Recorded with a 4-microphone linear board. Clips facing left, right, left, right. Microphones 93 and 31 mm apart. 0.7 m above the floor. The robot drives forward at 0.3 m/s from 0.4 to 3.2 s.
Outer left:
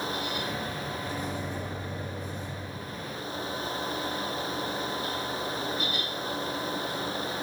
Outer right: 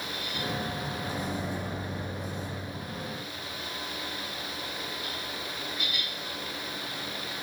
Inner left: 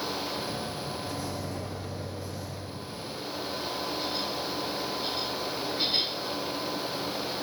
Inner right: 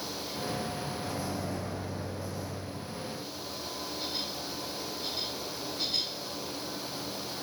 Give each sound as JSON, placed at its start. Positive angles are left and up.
{"t": 1.0, "sound": "a microwave", "side_deg": -40, "distance_m": 1.8}